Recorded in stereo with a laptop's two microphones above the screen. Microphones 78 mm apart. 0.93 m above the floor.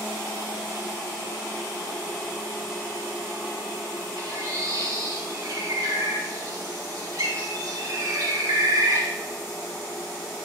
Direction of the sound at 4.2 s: 45° right (ahead or behind).